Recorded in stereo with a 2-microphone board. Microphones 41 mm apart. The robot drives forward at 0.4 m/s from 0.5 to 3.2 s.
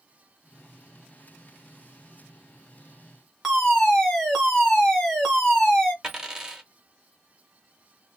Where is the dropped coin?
15° right (ahead or behind), 0.9 m.